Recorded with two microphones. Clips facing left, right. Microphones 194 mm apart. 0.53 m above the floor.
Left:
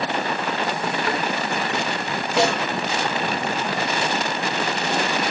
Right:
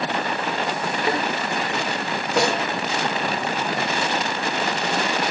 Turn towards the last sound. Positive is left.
turn(degrees=-70)  # may be behind; listen again after turning